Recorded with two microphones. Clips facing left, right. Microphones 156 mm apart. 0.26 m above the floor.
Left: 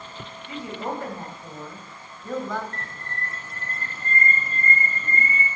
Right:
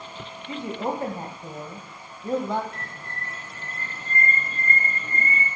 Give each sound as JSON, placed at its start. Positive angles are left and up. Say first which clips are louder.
{"t": 0.5, "sound": "a woman speaking", "louder": "right 3 dB", "side_deg": -30, "distance_m": 1.1}
{"t": 2.7, "sound": "a bird", "louder": "left 1 dB", "side_deg": -5, "distance_m": 1.9}